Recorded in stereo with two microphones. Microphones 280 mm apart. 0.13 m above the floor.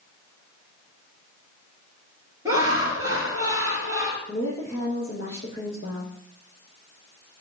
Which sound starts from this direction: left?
A woman speaking, at 4.3 s.